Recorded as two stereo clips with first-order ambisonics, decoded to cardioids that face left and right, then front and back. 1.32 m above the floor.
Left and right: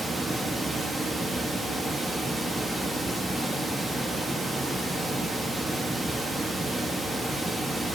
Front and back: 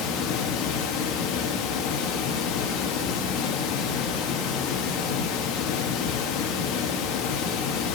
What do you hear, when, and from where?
0.0 s running water: 5° right, 1.2 m